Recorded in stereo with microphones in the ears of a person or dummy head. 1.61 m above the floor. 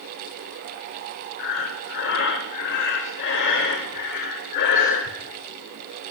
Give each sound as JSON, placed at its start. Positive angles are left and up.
{"t": 1.4, "sound": "breathing", "side_deg": 60, "distance_m": 1.2}